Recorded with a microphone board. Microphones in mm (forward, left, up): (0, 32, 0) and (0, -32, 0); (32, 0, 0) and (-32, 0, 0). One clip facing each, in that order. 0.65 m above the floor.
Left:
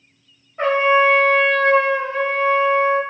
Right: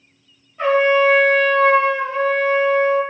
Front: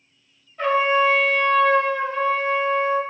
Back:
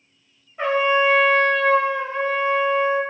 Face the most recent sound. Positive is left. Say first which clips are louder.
# right 1 dB, even
turn(degrees=115)